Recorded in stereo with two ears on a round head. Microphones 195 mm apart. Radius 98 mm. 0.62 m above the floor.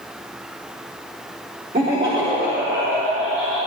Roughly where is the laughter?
Right.